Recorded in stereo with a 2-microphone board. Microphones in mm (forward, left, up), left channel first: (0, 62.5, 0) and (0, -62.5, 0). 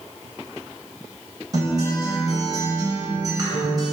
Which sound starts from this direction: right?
A guitar, at 1.5 s.